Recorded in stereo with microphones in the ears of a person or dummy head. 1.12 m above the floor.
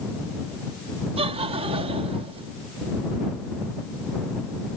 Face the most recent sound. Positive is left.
turn(degrees=-35)  # may be behind; listen again after turning